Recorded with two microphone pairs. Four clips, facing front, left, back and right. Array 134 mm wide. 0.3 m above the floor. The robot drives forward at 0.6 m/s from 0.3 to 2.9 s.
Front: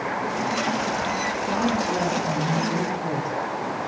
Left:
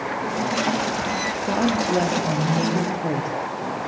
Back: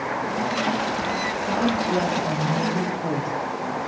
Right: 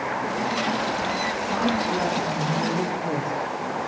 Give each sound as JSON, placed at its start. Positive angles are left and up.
{"t": 1.5, "sound": "a woman speaking", "azimuth_deg": 100, "distance_m": 5.5}